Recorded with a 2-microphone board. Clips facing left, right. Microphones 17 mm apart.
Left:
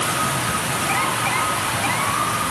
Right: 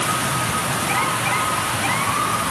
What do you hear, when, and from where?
Only background noise.